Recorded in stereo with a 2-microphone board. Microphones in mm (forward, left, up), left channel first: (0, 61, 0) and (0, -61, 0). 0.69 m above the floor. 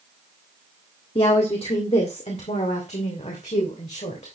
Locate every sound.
1.1 s a woman speaking: 50° left (ahead or behind), 1.7 m; by 4.4 s 75° left (ahead or behind), 3 m